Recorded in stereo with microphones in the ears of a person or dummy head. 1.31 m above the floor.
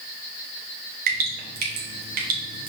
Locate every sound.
1.1 s dripping: 45° right (ahead or behind), 0.7 m